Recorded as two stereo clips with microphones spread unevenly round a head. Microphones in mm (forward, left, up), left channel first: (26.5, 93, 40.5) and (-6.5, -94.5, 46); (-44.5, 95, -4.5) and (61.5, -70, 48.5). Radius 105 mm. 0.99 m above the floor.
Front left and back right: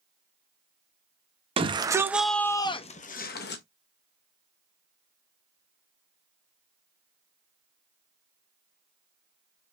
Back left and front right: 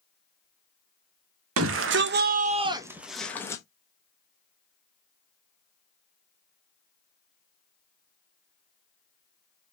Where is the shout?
40° right, 1.0 m; by 3.6 s 55° left, 1.1 m.